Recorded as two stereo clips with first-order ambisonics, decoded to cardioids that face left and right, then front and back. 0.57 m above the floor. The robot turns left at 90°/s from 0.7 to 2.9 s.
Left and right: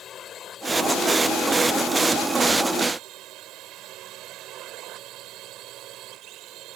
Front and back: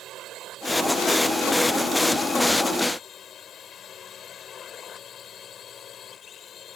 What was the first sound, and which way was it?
A drone, 140° left.